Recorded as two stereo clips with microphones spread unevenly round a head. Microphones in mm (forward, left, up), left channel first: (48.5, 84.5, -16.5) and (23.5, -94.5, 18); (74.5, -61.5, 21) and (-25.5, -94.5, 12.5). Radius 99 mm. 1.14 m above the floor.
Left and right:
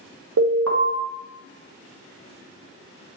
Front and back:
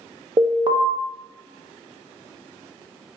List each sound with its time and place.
0.4 s an alarm: 115° right, 0.8 m